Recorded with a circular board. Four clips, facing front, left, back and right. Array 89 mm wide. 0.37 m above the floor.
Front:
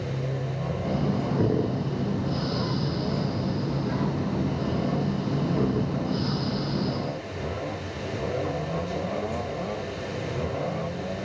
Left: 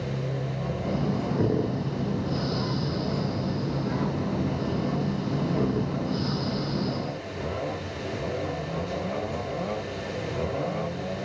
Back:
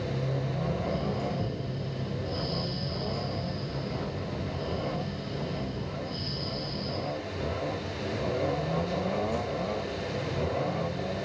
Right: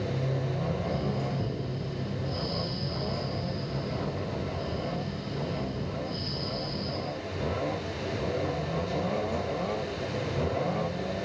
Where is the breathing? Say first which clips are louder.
Left 3 dB, front 4 dB; 40° left.